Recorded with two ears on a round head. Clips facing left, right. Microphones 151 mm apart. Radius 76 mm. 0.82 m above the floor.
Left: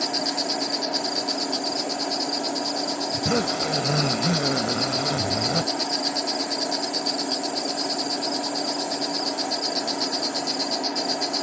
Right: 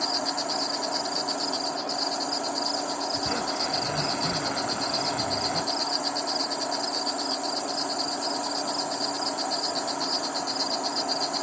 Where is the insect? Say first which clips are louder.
Left 3 dB; 25° left (ahead or behind).